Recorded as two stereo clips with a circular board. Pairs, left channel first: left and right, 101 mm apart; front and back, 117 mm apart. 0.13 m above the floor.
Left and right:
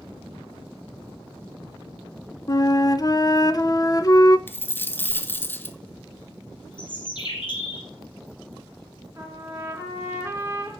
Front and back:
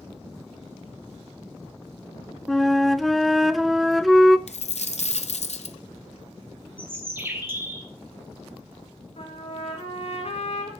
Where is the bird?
110° left, 2.5 m.